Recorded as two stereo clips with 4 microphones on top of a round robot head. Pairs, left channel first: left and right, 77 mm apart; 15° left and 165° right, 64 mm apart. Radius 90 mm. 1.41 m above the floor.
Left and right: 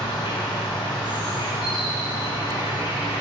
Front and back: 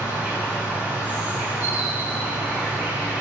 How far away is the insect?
About 1.1 m.